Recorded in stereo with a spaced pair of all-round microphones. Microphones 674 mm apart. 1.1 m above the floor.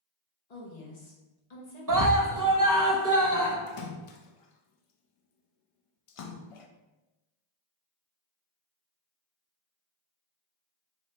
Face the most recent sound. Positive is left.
turn(degrees=55)  # may be behind; listen again after turning